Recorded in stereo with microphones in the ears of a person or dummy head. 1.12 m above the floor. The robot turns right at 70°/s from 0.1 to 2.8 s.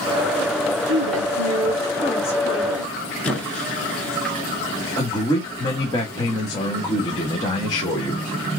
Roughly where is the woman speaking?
Right.